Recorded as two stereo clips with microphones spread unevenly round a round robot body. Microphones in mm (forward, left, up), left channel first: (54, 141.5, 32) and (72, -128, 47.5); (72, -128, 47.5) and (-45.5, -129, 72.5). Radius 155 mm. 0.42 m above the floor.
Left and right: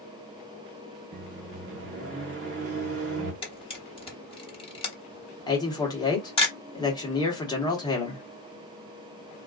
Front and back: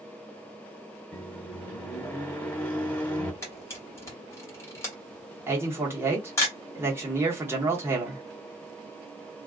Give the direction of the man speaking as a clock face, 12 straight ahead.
8 o'clock.